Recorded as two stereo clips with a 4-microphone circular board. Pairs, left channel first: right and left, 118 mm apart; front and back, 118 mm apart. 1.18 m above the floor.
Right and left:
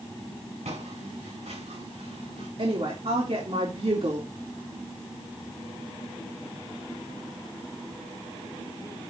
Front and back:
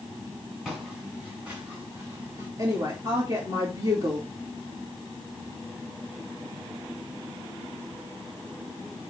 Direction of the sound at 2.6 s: 120° left.